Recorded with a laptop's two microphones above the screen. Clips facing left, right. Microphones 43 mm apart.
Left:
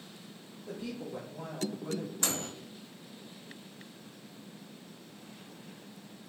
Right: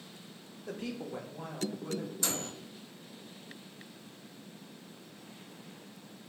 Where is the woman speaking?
60° right (ahead or behind), 0.8 m; by 2.1 s 20° left (ahead or behind), 1.6 m.